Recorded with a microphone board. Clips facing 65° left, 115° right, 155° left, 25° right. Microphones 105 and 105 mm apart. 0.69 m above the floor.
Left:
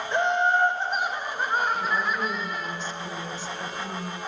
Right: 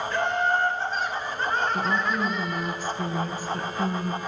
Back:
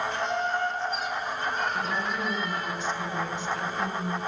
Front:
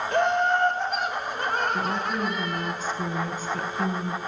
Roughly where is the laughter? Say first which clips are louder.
Left 3 dB, front 6 dB; ahead.